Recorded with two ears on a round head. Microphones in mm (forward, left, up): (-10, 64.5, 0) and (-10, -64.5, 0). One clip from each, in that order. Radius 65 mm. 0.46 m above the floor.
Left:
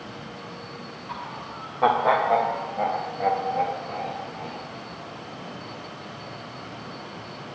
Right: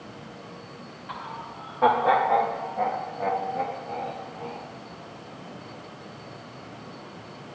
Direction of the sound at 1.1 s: 20° right (ahead or behind).